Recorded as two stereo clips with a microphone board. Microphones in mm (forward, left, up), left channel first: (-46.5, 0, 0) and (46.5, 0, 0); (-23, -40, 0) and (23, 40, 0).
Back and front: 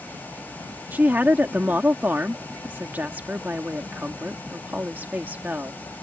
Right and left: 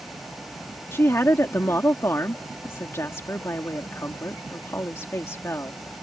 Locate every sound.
0.9 s a woman speaking: 65° right